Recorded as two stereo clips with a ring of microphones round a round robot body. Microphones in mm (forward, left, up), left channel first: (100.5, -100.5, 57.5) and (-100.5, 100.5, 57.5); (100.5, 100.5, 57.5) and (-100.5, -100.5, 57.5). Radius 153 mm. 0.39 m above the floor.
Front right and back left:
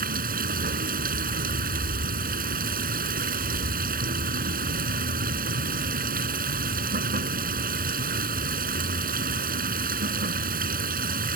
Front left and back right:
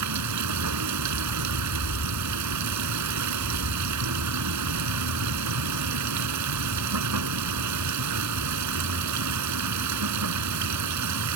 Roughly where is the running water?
Behind.